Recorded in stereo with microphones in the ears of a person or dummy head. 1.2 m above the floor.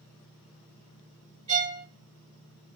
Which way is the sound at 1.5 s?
20° right (ahead or behind).